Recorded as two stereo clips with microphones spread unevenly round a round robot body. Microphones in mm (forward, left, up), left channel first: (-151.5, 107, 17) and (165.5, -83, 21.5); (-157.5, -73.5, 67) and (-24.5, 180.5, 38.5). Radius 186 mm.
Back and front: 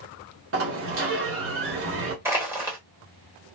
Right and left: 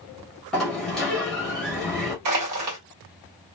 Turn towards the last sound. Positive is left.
turn(degrees=50)